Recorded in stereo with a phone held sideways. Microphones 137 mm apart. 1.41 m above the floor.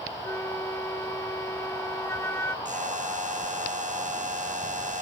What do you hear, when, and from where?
0.2 s a flute: 20° left (ahead or behind)
2.6 s a buzzer: 65° right (ahead or behind)